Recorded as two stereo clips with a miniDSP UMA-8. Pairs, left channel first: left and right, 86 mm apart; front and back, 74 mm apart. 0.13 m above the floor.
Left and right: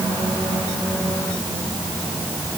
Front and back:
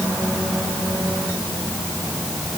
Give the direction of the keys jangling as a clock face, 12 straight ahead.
I don't hear keys jangling.